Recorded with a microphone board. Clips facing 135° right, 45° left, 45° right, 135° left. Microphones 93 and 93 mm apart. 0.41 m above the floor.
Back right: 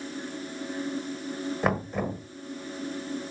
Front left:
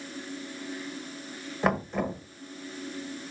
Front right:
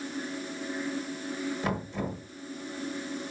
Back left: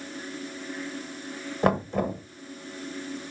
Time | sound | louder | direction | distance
1.6 | knocking | front left 2 dB, back left 8 dB | 135° left | 1.3 m